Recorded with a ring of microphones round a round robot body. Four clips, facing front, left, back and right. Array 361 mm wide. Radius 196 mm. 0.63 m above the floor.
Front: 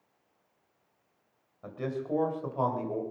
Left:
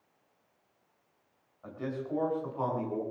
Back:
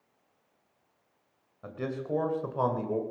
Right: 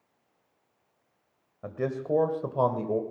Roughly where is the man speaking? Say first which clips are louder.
Right 6 dB, even; right.